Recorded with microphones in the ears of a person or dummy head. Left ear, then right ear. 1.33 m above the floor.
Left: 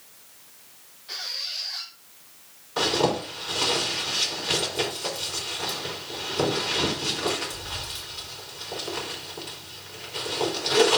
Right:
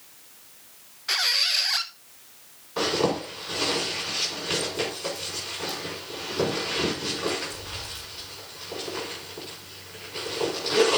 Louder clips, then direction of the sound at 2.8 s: Left 1 dB; 15° left (ahead or behind).